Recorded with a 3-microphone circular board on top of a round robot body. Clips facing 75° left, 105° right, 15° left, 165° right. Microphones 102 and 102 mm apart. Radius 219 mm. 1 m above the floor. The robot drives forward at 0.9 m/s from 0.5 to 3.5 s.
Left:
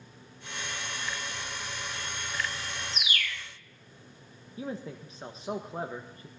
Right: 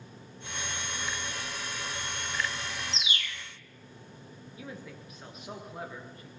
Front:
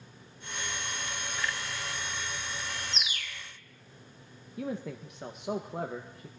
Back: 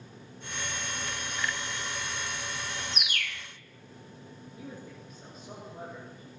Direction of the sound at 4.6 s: 20° left.